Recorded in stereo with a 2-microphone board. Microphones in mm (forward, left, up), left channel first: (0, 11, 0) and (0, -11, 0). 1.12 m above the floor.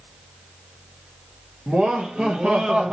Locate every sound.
1.7 s laughter: 75° right (ahead or behind), 2 m; by 2.9 s 60° right (ahead or behind), 1.5 m